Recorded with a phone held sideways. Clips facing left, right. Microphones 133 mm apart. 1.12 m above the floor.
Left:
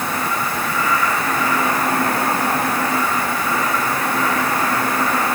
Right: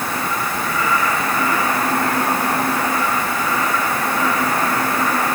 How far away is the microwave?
I don't hear a microwave.